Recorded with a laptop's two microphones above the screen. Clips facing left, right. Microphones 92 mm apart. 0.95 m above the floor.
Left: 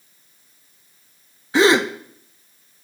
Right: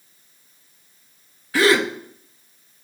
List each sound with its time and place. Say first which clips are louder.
1.5 s a gasp: left 2 dB; 25° left (ahead or behind), 0.7 m